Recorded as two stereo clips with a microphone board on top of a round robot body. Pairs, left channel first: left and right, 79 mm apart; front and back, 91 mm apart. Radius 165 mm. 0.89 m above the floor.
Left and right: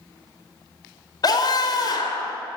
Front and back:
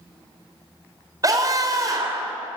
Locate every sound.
1.2 s a scream: 130° left, 3.5 m